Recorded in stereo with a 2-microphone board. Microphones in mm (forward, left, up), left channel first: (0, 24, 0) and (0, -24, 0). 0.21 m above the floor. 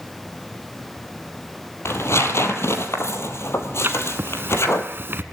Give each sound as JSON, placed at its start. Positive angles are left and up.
{"t": 1.9, "sound": "tearing paper", "side_deg": 70, "distance_m": 1.8}
{"t": 3.8, "sound": "writing", "side_deg": -55, "distance_m": 1.1}